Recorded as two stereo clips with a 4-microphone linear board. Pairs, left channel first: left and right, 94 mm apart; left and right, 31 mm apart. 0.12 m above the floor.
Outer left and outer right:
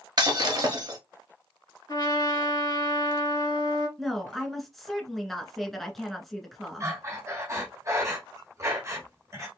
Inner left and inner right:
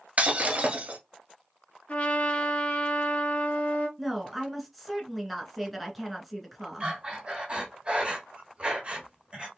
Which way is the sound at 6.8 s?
35° right (ahead or behind).